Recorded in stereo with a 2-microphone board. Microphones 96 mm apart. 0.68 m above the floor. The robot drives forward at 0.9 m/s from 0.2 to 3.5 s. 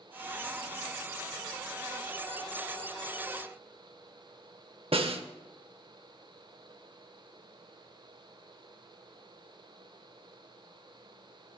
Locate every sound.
4.9 s a snare drum: 75° right (ahead or behind), 0.7 m